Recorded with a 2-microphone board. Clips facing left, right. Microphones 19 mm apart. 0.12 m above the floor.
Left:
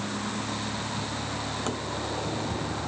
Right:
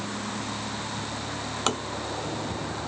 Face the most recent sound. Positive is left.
turn(degrees=-50)  # may be behind; listen again after turning